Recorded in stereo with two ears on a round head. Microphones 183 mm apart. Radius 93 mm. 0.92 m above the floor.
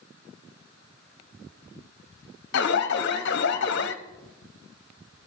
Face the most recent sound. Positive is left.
turn(degrees=50)  # may be behind; listen again after turning